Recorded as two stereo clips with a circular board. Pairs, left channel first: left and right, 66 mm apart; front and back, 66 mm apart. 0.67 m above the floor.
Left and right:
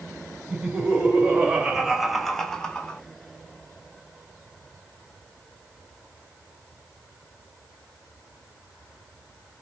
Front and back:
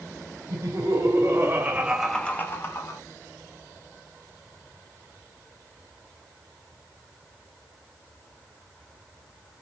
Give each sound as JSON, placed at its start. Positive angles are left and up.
{"t": 0.5, "sound": "laughter", "azimuth_deg": -160, "distance_m": 2.5}